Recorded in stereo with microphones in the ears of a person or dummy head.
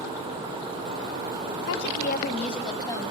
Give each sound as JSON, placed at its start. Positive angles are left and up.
{"t": 1.7, "sound": "a woman speaking", "side_deg": 70, "distance_m": 0.6}